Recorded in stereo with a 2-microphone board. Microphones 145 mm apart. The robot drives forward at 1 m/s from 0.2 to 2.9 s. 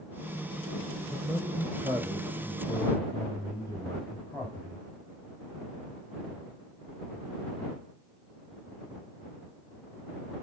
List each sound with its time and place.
1.1 s a man speaking: 20° right (ahead or behind), 2 m; by 4.8 s 15° right (ahead or behind), 3.5 m